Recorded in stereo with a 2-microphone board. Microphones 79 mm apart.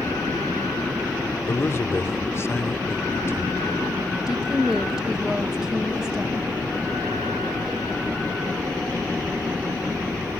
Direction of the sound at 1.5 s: 35° left (ahead or behind).